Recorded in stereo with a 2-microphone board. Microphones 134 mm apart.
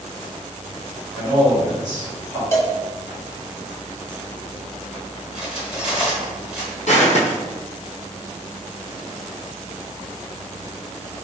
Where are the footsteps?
65° left (ahead or behind), 1.0 m.